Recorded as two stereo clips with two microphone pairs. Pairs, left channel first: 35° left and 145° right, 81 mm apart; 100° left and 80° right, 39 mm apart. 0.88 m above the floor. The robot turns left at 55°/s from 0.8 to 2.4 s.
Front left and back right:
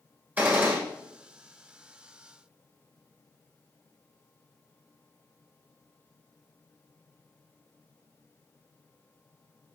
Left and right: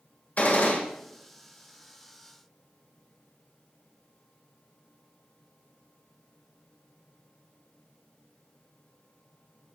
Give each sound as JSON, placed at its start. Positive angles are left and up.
{"t": 0.4, "sound": "a gunshot", "azimuth_deg": 145, "distance_m": 2.0}